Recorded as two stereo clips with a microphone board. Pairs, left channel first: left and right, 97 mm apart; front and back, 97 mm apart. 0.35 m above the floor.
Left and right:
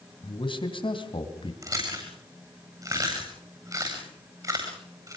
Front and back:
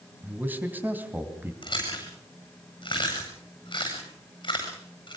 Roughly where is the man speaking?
Left.